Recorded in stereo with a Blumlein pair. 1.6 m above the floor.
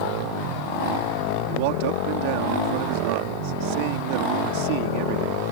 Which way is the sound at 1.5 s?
45° right.